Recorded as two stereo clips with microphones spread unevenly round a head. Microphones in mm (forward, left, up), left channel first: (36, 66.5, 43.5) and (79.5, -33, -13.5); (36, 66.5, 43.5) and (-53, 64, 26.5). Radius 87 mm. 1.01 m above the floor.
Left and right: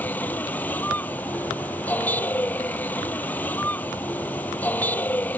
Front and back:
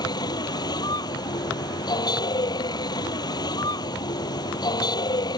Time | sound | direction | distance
0.0 | a vehicle | 40° left | ?